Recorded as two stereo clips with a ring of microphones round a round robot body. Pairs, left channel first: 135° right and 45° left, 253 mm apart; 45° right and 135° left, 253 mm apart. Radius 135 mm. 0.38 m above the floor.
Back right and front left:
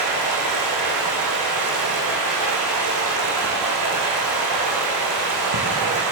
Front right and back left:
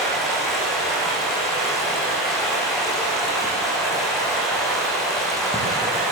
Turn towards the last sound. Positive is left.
turn(degrees=45)